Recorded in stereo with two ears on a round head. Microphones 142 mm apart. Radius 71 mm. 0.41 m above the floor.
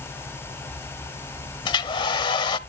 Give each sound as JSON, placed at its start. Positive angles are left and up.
{"t": 1.6, "sound": "a hair dryer", "side_deg": 30, "distance_m": 0.7}